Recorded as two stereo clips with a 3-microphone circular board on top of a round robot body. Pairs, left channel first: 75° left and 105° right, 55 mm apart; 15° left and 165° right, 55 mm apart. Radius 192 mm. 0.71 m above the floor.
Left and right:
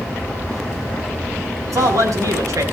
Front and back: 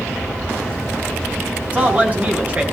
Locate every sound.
1.7 s a man speaking: 100° right, 8 m